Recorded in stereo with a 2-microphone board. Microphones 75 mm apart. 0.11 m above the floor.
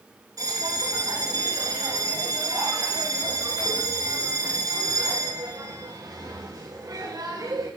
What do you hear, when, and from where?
0.4 s a bell: 55° right (ahead or behind), 10 m